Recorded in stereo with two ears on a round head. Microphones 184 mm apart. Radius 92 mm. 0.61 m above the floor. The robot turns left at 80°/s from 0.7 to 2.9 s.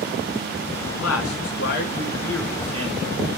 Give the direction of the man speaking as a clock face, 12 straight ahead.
8 o'clock.